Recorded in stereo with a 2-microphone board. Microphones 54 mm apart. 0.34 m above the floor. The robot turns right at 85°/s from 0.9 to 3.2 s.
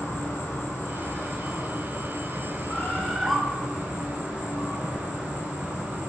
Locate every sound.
0.0 s an insect: 135° left, 1.2 m; by 6.1 s 30° right, 1.2 m
2.7 s a bird: 145° left, 0.6 m; by 3.4 s 170° right, 0.6 m